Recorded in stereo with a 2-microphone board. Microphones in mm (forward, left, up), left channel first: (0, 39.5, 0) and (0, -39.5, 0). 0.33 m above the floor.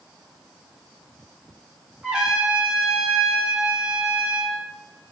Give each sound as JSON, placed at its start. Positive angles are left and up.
{"t": 2.0, "sound": "a trumpet", "side_deg": -10, "distance_m": 0.6}